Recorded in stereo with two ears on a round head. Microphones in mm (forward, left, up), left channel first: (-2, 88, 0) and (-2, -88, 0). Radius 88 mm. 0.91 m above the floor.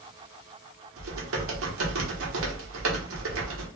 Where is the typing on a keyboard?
75° right (ahead or behind), 1.0 m.